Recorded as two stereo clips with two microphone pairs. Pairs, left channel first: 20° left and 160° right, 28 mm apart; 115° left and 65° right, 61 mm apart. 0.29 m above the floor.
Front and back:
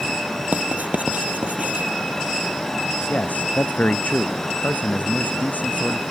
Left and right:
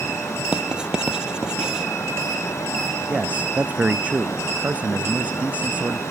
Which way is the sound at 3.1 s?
Straight ahead.